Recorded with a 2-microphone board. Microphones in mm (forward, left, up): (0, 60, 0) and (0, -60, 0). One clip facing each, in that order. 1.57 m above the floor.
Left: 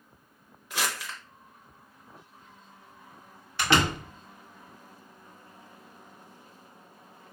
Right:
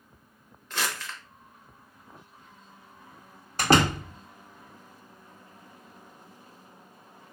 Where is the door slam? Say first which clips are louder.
Right 3 dB; 40° right (ahead or behind), 0.9 m.